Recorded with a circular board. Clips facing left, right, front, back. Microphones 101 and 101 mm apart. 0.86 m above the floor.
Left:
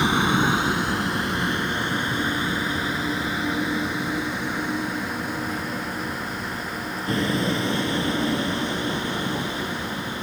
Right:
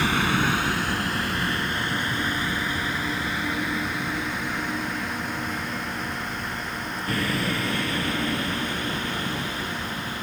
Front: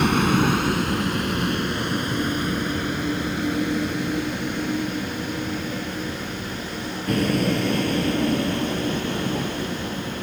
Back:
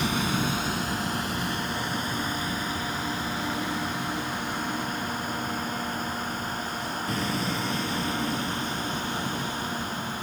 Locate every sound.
0.0 s a vehicle: 20° left; by 10.2 s 25° left